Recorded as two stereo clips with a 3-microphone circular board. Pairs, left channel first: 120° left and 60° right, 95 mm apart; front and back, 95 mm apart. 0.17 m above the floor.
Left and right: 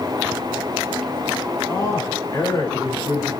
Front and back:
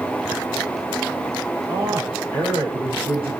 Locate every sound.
1.7 s a man speaking: 165° left, 7.5 m